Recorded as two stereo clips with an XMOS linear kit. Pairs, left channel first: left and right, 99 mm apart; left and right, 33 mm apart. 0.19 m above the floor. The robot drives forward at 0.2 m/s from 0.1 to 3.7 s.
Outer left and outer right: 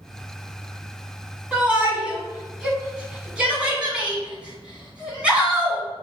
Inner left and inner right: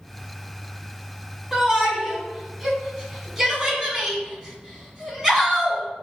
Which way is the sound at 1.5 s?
15° right (ahead or behind).